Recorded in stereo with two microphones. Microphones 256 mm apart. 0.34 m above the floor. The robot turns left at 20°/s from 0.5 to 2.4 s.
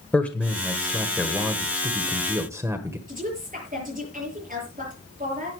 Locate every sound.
0.1 s a man speaking: 5° left (ahead or behind), 1.4 m; by 3.0 s 10° right (ahead or behind), 1.4 m
3.1 s a woman speaking: 30° right (ahead or behind), 7 m